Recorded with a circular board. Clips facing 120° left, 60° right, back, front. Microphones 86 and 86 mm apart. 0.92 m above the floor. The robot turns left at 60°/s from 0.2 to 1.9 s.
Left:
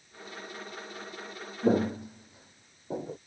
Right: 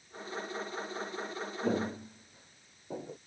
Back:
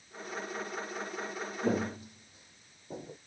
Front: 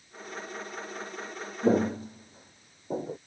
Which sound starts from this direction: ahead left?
Footsteps, at 1.6 s.